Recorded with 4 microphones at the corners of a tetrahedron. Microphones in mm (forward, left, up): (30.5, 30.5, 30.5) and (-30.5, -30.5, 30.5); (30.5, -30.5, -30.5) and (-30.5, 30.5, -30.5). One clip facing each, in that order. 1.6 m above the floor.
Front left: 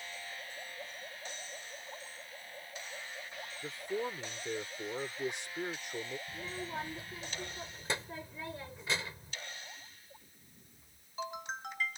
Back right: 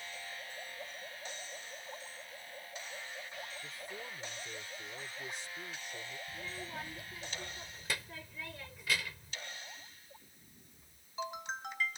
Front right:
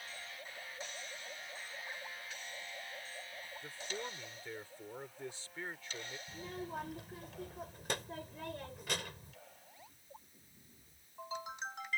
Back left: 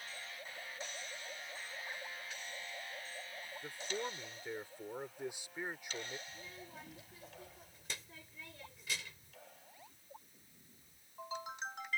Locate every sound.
3.6 s a man speaking: 60° left
6.3 s a child speaking: 15° right